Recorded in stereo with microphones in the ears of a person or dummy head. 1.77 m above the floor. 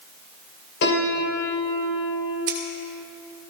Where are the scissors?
60° right (ahead or behind), 2.5 m.